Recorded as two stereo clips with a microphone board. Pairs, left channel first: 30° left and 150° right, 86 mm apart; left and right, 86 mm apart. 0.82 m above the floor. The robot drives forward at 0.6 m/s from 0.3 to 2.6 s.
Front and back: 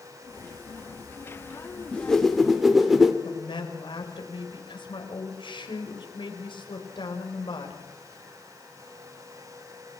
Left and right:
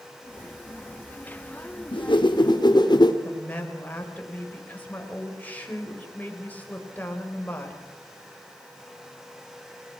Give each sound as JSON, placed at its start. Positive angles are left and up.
{"t": 1.9, "sound": "a whoosh", "azimuth_deg": 110, "distance_m": 1.4}
{"t": 3.2, "sound": "a woman speaking", "azimuth_deg": 20, "distance_m": 4.0}